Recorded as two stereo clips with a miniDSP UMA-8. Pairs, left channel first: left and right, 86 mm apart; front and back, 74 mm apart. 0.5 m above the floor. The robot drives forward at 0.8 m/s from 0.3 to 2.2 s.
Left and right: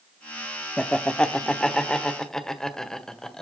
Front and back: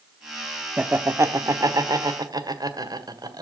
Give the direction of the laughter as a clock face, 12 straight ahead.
7 o'clock.